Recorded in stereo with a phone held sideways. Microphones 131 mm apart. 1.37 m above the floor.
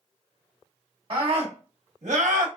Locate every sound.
1.1 s a scream: 45° right (ahead or behind), 1.3 m; by 2.5 s 75° right (ahead or behind), 0.9 m